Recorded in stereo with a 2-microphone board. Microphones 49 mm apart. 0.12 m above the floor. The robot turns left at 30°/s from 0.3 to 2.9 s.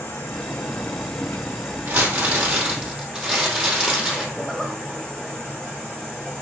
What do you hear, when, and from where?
0.0 s an insect: 90° left, 3 m; by 6.4 s 15° left, 3 m
1.9 s crumpling: 130° right, 3 m; by 4.2 s 165° right, 3 m
4.3 s a zipper: 5° left (ahead or behind), 3 m